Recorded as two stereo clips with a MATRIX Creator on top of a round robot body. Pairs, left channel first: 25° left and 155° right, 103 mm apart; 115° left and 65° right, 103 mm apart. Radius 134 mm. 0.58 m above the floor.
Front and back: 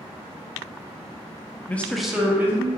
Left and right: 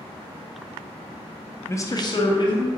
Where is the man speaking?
75° left, 0.6 m; by 2.7 s 135° left, 1.0 m.